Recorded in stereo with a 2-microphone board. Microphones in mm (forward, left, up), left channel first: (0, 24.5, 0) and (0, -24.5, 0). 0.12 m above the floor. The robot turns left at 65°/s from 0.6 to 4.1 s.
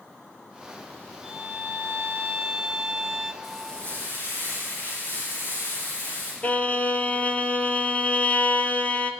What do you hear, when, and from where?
1.2 s a violin: 35° right, 1.5 m; by 3.3 s 170° right, 1.5 m
3.4 s frying: 175° left, 9.5 m; by 6.3 s 135° left, 9.5 m
6.4 s a violin: 30° left (ahead or behind), 1.3 m